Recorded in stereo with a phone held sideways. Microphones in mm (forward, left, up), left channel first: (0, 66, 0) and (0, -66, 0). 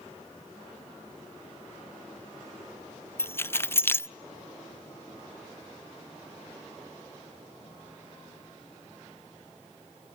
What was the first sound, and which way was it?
Keys jangling, 20° left (ahead or behind).